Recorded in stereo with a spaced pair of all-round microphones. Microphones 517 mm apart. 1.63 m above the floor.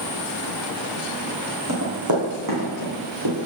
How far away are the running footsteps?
About 4 m.